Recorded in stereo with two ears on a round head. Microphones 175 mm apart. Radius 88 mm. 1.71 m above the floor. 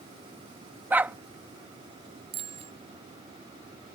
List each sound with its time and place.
0.9 s a dog barking: 10° right (ahead or behind)
2.3 s a bicycle bell: 30° right (ahead or behind)